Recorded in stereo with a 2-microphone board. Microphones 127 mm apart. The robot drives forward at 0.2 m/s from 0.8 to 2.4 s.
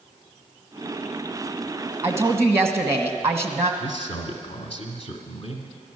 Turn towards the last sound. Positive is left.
turn(degrees=50)  # may be behind; listen again after turning